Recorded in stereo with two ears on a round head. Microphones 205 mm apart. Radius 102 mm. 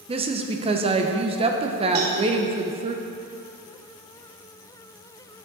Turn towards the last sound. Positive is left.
turn(degrees=-70)  # may be behind; listen again after turning